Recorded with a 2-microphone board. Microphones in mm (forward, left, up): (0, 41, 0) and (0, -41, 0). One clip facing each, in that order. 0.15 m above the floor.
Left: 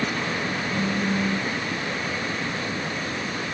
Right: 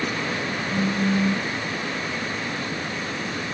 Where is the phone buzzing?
5° left (ahead or behind), 5 m.